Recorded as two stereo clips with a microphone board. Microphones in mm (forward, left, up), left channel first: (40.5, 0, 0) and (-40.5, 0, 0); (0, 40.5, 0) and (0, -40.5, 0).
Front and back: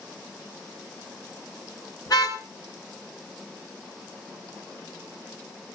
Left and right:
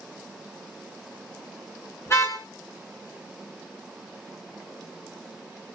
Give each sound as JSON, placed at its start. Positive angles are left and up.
{"t": 2.1, "sound": "a car horn", "azimuth_deg": 35, "distance_m": 7.0}